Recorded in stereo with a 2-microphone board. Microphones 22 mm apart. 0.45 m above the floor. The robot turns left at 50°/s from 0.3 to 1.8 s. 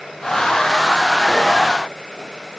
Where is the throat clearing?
No throat clearing in this recording.